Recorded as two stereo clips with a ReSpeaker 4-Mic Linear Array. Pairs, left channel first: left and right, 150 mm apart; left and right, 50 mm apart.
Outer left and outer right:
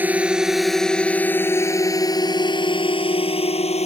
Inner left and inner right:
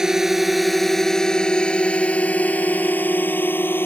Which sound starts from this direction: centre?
A drone, at 0.0 s.